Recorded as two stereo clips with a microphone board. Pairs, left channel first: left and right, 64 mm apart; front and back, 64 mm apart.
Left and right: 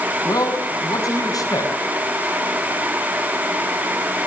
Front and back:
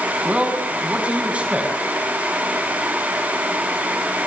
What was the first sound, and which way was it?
A man speaking, 110° left.